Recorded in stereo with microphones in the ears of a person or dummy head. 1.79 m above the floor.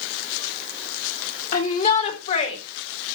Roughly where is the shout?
Left.